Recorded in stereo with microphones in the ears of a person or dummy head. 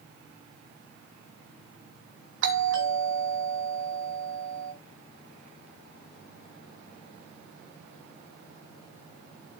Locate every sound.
2.4 s a doorbell: 65° right (ahead or behind), 2.5 m